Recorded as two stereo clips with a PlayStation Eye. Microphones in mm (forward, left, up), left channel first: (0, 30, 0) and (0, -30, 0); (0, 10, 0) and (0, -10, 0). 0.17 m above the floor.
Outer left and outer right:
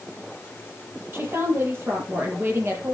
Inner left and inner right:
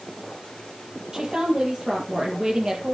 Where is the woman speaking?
35° right (ahead or behind), 4.5 m.